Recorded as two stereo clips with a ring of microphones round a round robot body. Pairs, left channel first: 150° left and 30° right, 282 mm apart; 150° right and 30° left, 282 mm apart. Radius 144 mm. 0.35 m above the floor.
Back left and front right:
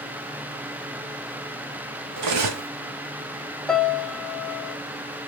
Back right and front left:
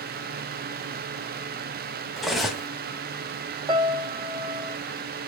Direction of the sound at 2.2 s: 60° right.